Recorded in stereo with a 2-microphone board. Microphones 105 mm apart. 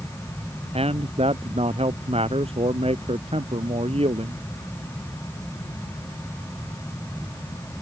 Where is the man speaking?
70° right (ahead or behind).